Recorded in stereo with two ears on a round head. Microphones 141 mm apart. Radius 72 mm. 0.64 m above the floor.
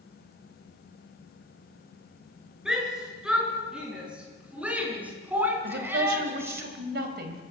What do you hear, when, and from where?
2.6 s a shout: 5° right (ahead or behind), 8 m; by 6.6 s 20° right (ahead or behind), 4 m
5.6 s a woman speaking: 70° right (ahead or behind), 3.5 m